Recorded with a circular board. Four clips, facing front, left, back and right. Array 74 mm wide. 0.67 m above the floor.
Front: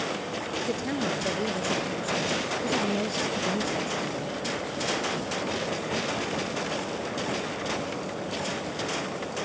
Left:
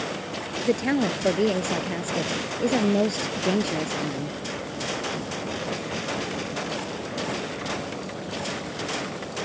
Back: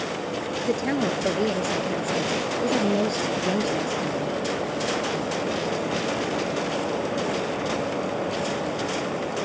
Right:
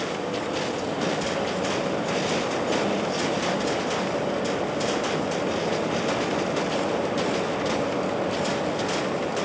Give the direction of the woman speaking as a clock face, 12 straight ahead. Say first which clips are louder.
Left 3 dB, back 6 dB; 8 o'clock.